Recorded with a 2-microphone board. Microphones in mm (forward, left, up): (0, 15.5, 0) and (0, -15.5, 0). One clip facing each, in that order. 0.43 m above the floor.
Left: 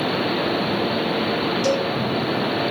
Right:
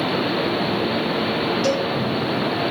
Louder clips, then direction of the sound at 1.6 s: Left 1 dB; 25° right (ahead or behind).